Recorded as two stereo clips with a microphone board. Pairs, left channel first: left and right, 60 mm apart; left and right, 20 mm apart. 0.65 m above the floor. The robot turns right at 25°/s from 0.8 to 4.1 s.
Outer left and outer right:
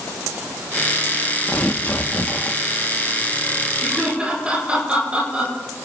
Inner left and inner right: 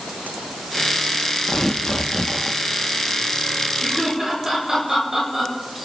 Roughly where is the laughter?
Right.